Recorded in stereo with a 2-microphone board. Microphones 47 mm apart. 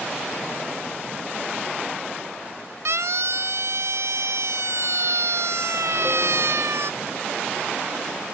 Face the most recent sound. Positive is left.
turn(degrees=-70)  # may be behind; listen again after turning